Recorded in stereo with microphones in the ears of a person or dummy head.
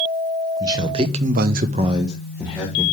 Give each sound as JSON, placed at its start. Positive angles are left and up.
{"t": 0.6, "sound": "a man speaking", "side_deg": -20, "distance_m": 1.3}